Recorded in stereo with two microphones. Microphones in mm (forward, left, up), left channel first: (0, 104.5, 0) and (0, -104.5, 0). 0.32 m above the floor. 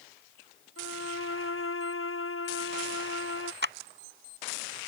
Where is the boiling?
I don't hear boiling.